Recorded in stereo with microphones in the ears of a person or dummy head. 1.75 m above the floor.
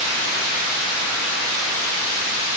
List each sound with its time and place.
Only background noise.